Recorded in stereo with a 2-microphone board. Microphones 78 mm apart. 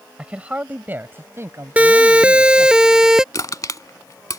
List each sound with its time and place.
0.2 s a man speaking: 15° right (ahead or behind); by 2.8 s 45° right (ahead or behind)
1.8 s a siren: 20° right (ahead or behind); by 3.2 s 10° right (ahead or behind)
3.3 s crushing: 45° left (ahead or behind)